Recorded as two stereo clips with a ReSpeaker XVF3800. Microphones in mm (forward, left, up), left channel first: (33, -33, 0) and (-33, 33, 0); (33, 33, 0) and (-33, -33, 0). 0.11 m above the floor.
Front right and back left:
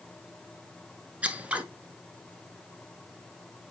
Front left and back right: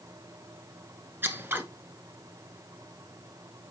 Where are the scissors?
170° right, 0.9 m.